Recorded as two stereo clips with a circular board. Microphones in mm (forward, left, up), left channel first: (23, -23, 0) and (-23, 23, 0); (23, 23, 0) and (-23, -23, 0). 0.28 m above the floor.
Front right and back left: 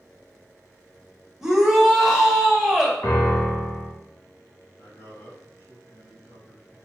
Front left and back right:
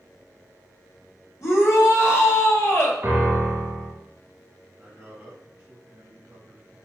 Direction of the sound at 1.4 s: 55° left.